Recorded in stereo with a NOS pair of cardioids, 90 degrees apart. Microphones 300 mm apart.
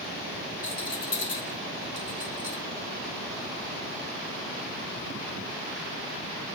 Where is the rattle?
45° left, 4.5 m.